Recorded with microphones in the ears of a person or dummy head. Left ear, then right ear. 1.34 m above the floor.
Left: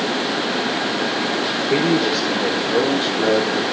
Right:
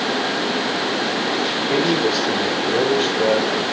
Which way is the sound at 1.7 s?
85° right.